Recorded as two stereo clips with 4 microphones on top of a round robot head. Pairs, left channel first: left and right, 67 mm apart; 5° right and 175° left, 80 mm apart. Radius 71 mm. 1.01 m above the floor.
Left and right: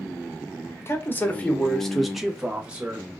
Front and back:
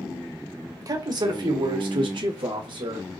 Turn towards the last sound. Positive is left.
turn(degrees=-160)